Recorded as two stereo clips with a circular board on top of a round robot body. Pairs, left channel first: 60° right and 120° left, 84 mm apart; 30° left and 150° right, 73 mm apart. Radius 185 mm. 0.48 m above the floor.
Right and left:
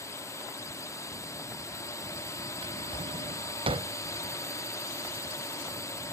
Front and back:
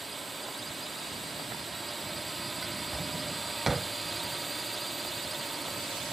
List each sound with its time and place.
0.0 s a drone: 60° right
2.6 s a drawer: 125° left